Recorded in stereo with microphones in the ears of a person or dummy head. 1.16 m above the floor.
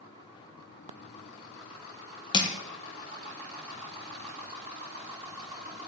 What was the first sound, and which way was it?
Crushing, 20° left (ahead or behind).